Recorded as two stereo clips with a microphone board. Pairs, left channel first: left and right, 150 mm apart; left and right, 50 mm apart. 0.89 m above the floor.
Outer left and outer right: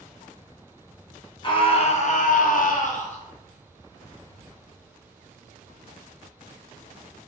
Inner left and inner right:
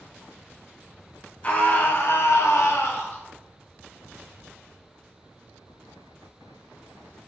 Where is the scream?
35° left (ahead or behind), 0.9 m; by 3.2 s 50° left (ahead or behind), 0.8 m.